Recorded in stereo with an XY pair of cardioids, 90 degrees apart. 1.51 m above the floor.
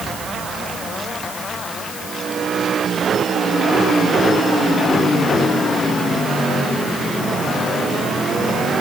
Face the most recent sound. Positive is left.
No sound to turn to.